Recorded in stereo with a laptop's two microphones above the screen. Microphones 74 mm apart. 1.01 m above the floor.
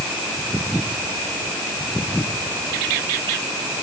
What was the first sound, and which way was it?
Only background noise.